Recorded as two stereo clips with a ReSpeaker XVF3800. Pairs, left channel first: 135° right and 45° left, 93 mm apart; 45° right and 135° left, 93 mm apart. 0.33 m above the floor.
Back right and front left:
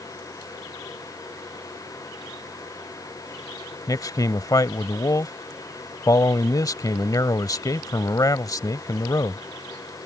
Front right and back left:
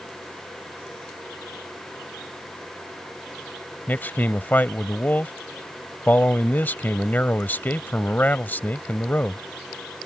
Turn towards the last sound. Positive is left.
turn(degrees=-110)